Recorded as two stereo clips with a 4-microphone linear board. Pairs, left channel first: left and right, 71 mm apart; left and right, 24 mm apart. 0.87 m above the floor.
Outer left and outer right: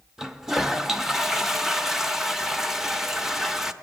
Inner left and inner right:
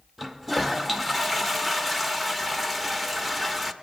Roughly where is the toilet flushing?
Centre.